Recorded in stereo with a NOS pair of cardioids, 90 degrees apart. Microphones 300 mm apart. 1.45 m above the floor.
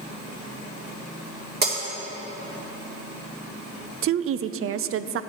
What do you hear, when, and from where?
1.6 s breaking glass: 35° right, 2.5 m
4.0 s a woman speaking: 45° right, 0.5 m